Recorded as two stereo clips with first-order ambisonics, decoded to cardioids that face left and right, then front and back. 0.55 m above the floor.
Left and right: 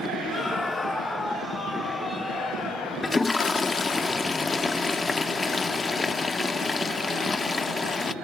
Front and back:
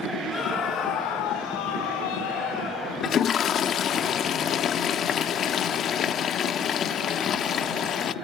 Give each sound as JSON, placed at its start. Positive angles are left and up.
{"t": 0.3, "sound": "a scream", "azimuth_deg": 40, "distance_m": 1.3}
{"t": 3.0, "sound": "a toilet flushing", "azimuth_deg": 20, "distance_m": 0.5}